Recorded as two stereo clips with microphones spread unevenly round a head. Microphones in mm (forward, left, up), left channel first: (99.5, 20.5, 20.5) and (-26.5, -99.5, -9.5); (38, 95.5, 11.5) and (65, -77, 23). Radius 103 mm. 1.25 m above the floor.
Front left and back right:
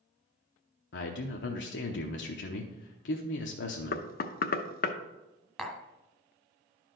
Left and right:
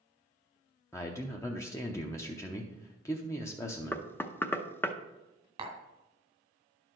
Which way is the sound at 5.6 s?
40° right.